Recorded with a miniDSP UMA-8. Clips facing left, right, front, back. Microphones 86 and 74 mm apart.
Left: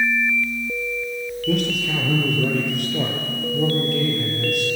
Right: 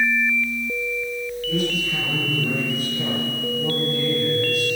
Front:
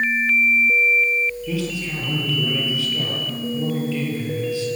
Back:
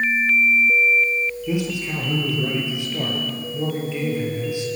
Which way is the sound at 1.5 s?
105° left.